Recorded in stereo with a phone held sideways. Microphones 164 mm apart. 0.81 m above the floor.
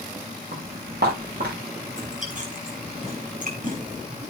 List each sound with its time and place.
0.5 s footsteps: 85° right, 8 m
1.9 s chewing: 50° right (ahead or behind), 4.5 m